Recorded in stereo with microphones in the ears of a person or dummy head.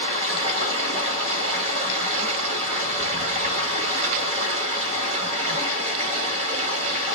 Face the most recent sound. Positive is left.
turn(degrees=-40)  # may be behind; listen again after turning